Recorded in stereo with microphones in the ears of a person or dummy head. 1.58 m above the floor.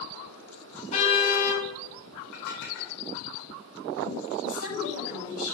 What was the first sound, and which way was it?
A car horn, 35° left (ahead or behind).